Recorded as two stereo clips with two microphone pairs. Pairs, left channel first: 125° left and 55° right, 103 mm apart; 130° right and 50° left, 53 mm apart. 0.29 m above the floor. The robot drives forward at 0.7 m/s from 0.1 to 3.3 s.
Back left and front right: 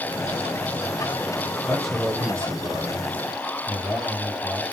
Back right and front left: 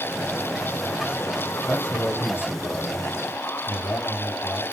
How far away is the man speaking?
About 1.7 m.